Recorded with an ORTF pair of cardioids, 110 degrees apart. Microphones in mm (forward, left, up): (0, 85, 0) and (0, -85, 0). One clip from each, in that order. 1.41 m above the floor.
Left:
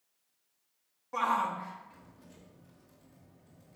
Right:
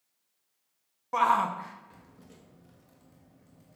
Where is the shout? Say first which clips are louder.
Right 5 dB; 35° right, 0.7 m.